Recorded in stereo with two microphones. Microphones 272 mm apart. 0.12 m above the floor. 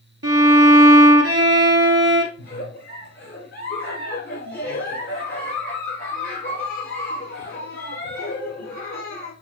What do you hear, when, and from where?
0.2 s a violin: 60° right (ahead or behind), 0.7 m
2.4 s a giggle: 50° left (ahead or behind), 2.5 m